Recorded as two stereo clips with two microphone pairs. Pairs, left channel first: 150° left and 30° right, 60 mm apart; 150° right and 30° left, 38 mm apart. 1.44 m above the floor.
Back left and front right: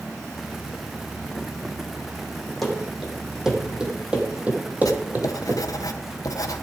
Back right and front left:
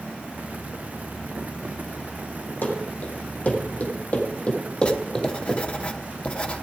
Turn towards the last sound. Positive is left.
turn(degrees=160)